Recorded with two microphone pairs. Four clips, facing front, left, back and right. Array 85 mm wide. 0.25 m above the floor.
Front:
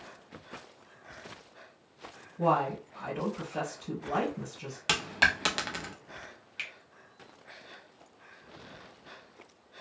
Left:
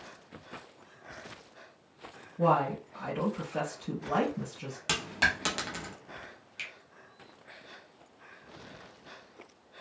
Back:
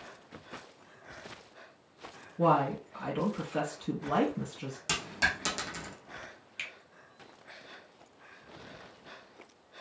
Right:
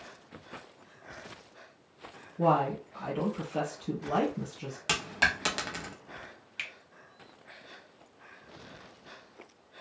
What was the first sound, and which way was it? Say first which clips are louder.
A woman speaking: even, back 1 dB; 165° left.